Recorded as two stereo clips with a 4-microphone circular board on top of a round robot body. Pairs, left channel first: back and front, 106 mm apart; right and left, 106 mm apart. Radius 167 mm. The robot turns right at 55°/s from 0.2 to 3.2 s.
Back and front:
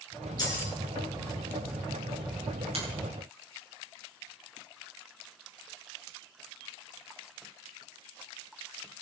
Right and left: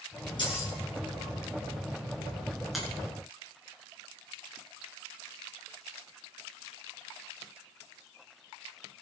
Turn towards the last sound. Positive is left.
turn(degrees=25)